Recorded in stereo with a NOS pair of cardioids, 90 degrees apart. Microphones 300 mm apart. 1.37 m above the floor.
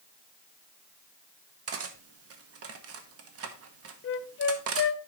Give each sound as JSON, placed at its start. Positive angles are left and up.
{"t": 1.7, "sound": "cutlery clinking", "azimuth_deg": -55, "distance_m": 1.3}
{"t": 4.0, "sound": "a flute", "azimuth_deg": 45, "distance_m": 0.7}